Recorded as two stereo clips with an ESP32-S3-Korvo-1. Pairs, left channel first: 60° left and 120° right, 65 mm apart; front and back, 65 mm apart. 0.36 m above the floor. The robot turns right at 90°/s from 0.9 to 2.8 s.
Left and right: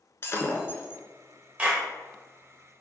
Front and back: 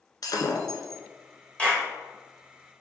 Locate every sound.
0.2 s breaking glass: 10° left, 0.7 m; by 1.0 s 20° left, 0.7 m
1.6 s a clap: 60° right, 1.2 m; by 1.9 s 30° right, 1.2 m